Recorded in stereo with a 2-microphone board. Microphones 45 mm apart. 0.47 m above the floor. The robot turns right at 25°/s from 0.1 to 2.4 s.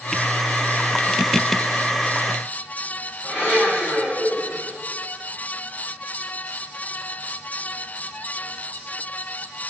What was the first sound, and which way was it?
A blender, 40° left (ahead or behind).